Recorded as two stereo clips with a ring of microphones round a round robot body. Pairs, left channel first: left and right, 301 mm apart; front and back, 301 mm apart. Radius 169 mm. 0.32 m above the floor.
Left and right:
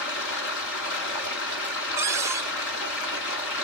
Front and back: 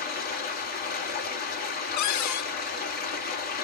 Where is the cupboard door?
10° right, 0.7 m.